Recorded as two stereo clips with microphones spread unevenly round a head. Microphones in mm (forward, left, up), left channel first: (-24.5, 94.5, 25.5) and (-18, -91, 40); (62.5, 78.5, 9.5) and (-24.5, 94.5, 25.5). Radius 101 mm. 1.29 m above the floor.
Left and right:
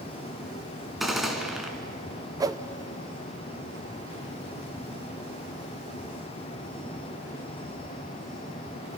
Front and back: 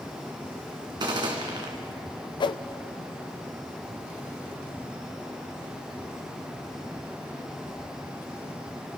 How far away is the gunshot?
About 2 m.